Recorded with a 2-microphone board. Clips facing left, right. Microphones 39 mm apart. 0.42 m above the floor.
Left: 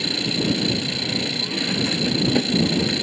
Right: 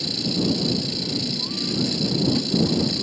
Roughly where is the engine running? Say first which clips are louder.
Left 1 dB; left.